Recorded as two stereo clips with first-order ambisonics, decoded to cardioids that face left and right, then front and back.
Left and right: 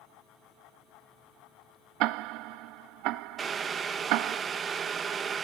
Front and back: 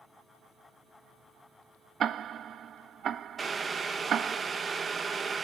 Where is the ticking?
120° right, 0.6 m.